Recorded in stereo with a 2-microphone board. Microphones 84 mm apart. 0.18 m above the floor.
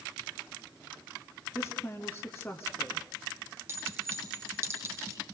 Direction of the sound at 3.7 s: 25° right (ahead or behind).